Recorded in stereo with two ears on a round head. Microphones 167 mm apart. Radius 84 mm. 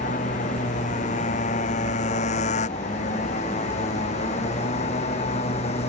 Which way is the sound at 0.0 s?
40° left (ahead or behind).